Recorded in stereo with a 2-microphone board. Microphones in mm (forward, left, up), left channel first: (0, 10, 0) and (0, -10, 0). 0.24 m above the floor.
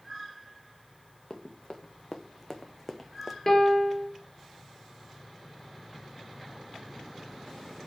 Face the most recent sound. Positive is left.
turn(degrees=20)  # may be behind; listen again after turning